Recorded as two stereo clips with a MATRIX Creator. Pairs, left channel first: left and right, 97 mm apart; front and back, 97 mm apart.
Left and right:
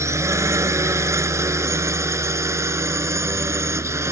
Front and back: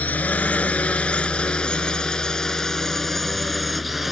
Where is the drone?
60° right; by 4.1 s 95° right.